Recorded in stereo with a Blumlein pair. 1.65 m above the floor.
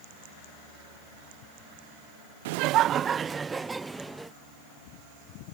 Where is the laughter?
55° right; by 4.3 s 5° right.